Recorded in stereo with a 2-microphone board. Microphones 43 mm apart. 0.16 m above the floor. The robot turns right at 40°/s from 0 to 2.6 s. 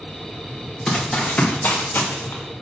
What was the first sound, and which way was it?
Running footsteps, 5° left (ahead or behind).